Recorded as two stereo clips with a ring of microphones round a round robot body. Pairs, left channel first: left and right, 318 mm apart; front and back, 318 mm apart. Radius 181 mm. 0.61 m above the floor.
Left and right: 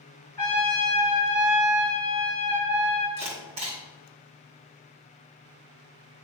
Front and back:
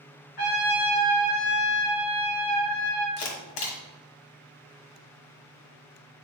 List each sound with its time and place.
0.4 s a trumpet: 5° left, 3 m
3.2 s a camera shutter: 15° right, 1.7 m